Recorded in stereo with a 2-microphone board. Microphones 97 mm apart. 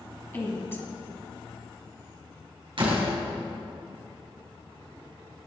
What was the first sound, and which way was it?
A woman speaking, 20° left (ahead or behind).